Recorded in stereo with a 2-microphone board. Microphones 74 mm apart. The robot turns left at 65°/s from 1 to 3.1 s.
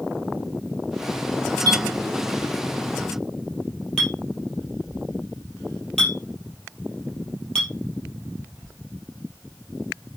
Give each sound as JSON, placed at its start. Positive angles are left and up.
{"t": 1.7, "sound": "a clink", "side_deg": -75, "distance_m": 4.0}